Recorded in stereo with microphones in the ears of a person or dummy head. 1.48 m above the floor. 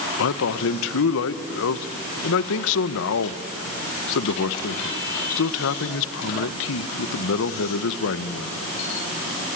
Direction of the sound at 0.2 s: 70° left (ahead or behind).